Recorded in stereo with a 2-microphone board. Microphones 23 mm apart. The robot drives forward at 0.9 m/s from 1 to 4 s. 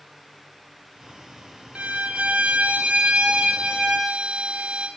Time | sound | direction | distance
1.8 | a violin | 70° right (ahead or behind) | 1.6 m